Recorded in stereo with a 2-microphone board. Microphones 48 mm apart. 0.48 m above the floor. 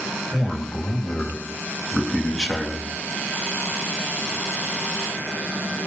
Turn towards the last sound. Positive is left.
turn(degrees=5)  # may be behind; listen again after turning